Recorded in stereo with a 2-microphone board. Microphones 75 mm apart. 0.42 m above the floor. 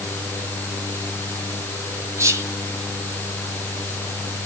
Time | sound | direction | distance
2.2 | whispering | 40° right (ahead or behind) | 2 m